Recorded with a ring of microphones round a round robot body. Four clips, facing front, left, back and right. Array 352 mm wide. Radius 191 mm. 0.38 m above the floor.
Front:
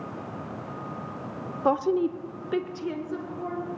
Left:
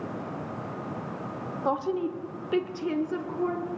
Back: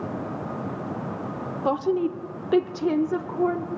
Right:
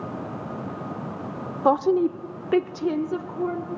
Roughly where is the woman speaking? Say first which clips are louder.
Right 8 dB, even; right.